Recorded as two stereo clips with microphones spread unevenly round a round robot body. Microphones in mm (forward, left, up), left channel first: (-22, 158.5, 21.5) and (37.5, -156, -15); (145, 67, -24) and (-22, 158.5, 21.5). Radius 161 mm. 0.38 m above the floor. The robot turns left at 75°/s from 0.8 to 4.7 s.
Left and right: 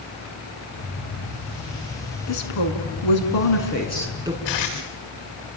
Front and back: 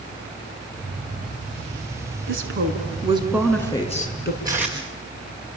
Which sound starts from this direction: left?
Tape being pulled, at 4.5 s.